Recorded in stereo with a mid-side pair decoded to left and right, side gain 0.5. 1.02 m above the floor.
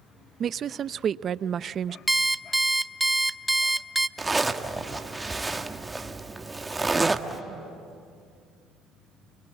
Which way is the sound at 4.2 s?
15° right.